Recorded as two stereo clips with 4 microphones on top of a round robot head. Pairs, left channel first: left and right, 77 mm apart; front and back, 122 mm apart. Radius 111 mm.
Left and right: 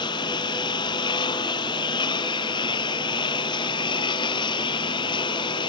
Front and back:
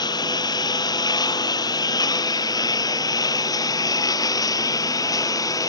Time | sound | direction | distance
0.0 | a lawn mower | 55° left | ?